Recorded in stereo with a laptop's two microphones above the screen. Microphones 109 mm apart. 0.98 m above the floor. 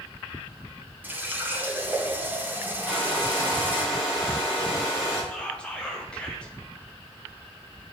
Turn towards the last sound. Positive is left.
turn(degrees=10)  # may be behind; listen again after turning